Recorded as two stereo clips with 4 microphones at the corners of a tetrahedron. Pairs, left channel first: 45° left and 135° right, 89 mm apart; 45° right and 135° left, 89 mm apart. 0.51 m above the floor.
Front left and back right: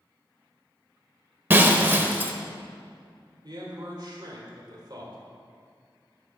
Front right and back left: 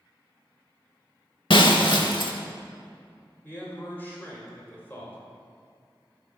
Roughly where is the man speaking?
Right.